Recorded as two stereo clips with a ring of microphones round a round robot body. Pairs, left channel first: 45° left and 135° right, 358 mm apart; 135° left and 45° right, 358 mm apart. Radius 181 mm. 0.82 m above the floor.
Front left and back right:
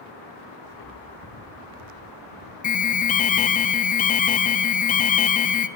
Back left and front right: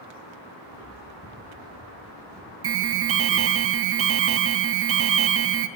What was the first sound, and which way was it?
Footsteps, 25° left.